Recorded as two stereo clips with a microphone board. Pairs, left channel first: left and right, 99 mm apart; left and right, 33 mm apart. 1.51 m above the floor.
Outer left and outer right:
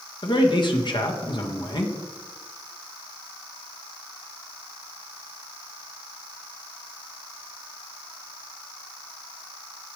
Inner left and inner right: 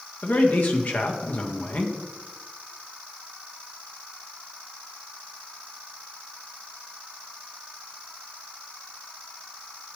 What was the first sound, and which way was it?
A man speaking, 50° left (ahead or behind).